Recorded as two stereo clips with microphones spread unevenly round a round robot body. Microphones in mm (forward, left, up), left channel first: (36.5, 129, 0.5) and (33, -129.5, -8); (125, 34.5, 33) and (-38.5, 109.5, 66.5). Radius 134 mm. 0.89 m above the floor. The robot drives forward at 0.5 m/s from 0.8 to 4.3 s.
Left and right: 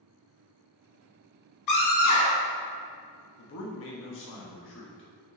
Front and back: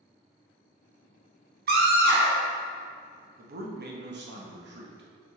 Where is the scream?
120° left, 2.5 m; by 2.5 s 125° left, 3 m.